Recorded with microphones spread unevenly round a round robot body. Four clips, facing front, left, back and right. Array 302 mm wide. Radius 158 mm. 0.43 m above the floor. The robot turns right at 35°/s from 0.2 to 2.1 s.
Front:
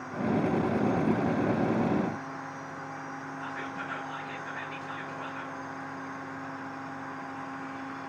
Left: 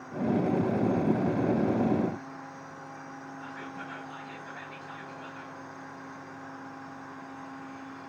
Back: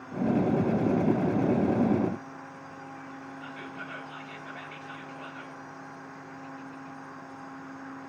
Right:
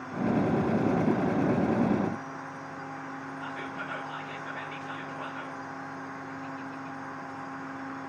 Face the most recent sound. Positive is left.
turn(degrees=-65)